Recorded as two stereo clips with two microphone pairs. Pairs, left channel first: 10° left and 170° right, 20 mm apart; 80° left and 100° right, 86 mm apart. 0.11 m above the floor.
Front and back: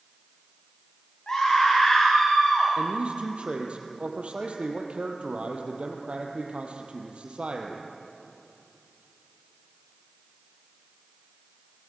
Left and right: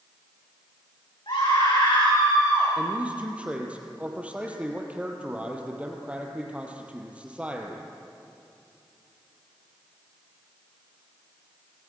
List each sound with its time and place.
1.3 s a scream: 60° left, 8 m; by 2.7 s 50° left, 7.5 m
2.8 s a man speaking: 175° right, 3.5 m